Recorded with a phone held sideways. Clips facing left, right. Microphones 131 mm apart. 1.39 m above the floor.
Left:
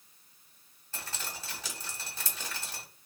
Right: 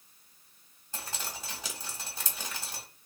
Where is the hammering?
No hammering in this recording.